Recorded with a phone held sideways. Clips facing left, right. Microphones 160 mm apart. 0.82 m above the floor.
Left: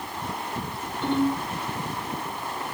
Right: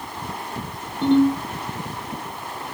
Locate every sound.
1.0 s a ringtone: 85° right, 4.5 m